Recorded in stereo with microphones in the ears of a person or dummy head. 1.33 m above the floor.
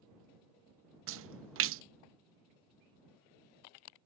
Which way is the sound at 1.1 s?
60° right (ahead or behind).